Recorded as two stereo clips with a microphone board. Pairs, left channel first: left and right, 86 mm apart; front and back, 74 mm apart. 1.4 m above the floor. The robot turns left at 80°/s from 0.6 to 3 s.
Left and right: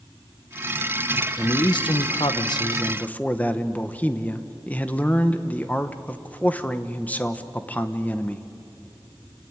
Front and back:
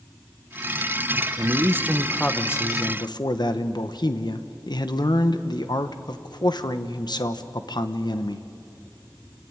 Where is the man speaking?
150° left, 1.3 m; by 8.4 s 20° left, 1.3 m.